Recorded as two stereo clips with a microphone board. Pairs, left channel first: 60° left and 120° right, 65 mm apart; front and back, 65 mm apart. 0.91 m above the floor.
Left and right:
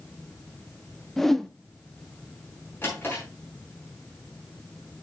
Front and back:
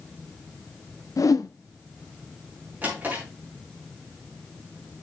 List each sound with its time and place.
1.2 s a whoosh: 25° right, 0.5 m
2.8 s a drawer: 120° left, 5 m